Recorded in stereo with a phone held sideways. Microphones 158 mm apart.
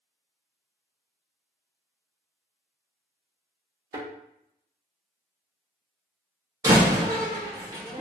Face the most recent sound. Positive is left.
turn(degrees=-20)  # may be behind; listen again after turning